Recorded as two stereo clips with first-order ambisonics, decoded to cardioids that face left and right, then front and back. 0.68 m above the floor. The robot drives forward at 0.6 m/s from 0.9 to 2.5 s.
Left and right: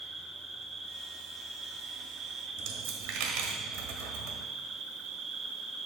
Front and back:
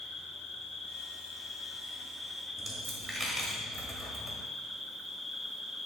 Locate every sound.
0.0 s an insect: 30° right, 1.3 m; by 5.9 s 85° right, 0.8 m
2.6 s a dropped coin: 100° right, 1.2 m